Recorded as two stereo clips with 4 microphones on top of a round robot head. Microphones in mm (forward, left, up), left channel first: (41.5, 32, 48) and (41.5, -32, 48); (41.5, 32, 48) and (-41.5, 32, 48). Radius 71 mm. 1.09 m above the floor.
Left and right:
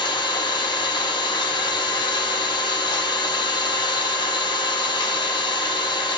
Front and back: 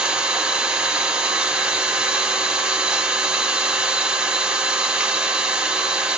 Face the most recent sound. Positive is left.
turn(degrees=100)